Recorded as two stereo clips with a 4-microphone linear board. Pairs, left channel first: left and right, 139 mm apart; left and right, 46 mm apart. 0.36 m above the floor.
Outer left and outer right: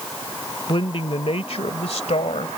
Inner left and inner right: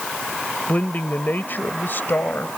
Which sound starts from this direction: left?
A man speaking, at 0.7 s.